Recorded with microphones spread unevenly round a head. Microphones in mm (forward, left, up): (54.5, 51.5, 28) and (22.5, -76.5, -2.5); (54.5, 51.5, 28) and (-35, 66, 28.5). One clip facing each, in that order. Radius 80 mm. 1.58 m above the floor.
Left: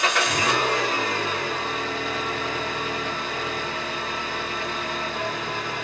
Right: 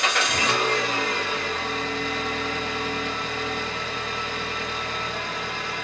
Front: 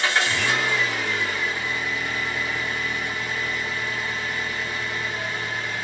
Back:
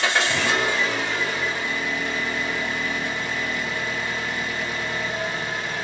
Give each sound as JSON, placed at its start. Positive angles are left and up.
{"t": 0.0, "sound": "an engine running", "azimuth_deg": 155, "distance_m": 1.0}